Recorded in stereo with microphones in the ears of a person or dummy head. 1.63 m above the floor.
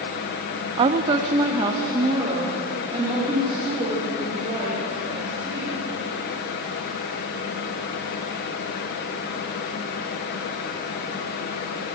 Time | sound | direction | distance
0.8 | a woman speaking | 35° right (ahead or behind) | 0.6 m